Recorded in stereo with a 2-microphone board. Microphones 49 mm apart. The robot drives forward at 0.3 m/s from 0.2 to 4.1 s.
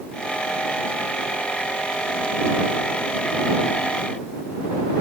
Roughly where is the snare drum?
No snare drum in this recording.